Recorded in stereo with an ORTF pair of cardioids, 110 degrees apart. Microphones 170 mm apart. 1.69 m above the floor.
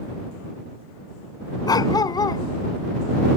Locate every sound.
1.7 s a dog barking: 25° left